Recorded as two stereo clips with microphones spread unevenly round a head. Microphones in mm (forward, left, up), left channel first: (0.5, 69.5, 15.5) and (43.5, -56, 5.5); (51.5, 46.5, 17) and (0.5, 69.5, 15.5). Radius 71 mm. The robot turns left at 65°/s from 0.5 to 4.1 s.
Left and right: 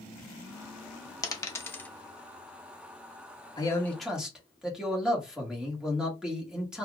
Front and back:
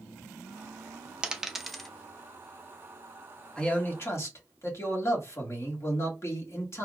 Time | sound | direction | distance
1.2 | a dropped coin | 95° left | 0.6 m
3.6 | a man speaking | 50° left | 1.8 m